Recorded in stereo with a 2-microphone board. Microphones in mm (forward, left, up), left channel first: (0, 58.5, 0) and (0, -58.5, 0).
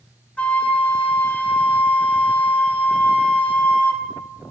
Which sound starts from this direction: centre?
A flute, at 0.4 s.